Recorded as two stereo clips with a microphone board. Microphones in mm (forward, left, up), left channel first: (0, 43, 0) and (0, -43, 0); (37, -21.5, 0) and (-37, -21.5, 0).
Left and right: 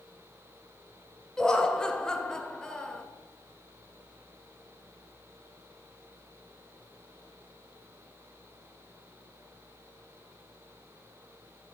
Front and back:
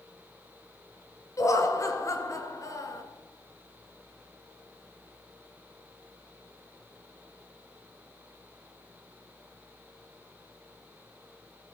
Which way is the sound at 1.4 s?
10° left.